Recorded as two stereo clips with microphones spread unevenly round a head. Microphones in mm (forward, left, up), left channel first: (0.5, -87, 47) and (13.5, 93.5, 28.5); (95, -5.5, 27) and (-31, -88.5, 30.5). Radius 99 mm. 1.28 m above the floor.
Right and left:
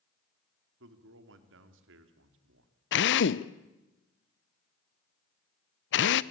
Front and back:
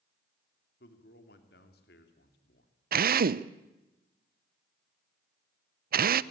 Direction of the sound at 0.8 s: 70° left.